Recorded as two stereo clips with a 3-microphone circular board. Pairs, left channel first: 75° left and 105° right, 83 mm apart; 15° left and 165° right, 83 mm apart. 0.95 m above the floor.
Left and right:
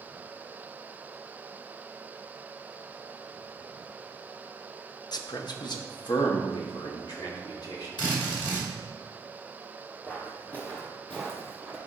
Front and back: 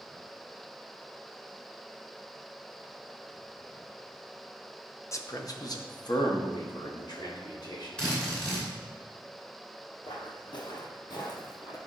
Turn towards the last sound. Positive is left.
turn(degrees=-10)